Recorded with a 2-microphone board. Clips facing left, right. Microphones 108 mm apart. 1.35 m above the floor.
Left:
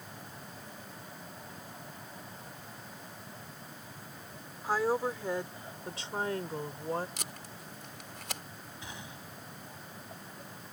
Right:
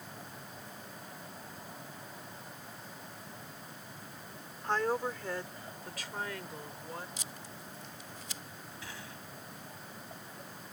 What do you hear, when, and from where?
4.6 s a woman speaking: 5° left (ahead or behind); by 7.1 s 40° left (ahead or behind)
7.2 s tape being pulled: 70° left (ahead or behind)
8.8 s a gunshot: 20° left (ahead or behind)